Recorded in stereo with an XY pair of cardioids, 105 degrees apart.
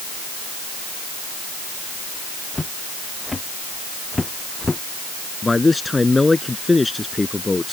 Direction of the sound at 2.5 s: 20° left.